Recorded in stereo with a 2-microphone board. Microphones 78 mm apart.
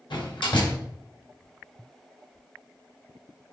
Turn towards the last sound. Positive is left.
turn(degrees=80)